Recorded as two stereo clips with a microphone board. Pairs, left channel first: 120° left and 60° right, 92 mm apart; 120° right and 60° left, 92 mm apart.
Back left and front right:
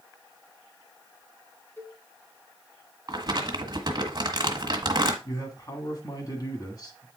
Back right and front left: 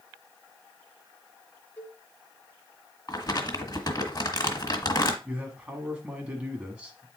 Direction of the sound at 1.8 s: 170° left.